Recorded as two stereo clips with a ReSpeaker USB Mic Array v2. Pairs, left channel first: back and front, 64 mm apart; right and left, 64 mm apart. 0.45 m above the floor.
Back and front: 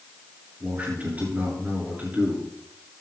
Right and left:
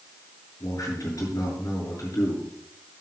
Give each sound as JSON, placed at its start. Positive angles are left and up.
{"t": 0.6, "sound": "a man speaking", "azimuth_deg": -65, "distance_m": 7.5}